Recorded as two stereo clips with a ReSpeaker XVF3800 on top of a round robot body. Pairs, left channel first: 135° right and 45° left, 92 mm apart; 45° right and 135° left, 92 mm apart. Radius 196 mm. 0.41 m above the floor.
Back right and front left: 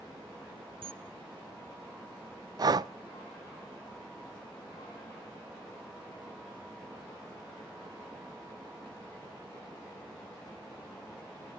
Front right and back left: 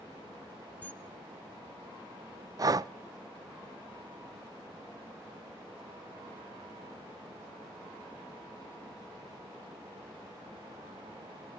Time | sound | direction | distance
0.8 | a camera shutter | 30° left | 1.1 m
2.6 | breathing | 85° left | 0.5 m